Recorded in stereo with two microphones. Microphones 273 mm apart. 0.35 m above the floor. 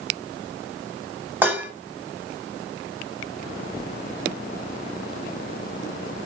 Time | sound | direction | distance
1.4 | dishes clattering | 5° right (ahead or behind) | 1.4 m